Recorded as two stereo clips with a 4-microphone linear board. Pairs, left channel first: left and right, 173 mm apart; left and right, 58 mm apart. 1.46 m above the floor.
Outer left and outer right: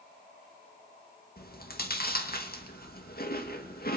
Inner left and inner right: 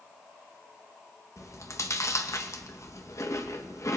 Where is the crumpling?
I don't hear crumpling.